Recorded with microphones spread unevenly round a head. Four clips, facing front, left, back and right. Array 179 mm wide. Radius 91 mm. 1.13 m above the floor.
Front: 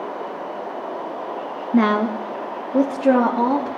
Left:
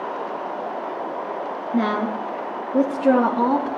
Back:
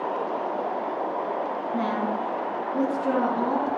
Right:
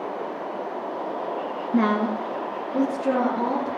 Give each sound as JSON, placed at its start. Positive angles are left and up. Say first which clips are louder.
{"t": 1.7, "sound": "a woman speaking", "louder": "right 1 dB, front 10 dB", "azimuth_deg": -5, "distance_m": 1.5}